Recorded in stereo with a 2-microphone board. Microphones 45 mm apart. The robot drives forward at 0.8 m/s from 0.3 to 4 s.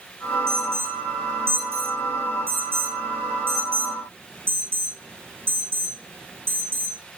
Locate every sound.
0.5 s an alarm: 75° right (ahead or behind), 6 m; by 7.0 s 55° right (ahead or behind), 7.5 m